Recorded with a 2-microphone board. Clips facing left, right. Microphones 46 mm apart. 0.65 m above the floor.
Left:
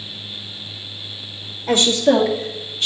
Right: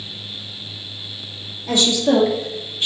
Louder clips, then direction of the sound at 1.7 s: Left 2 dB; 30° left (ahead or behind).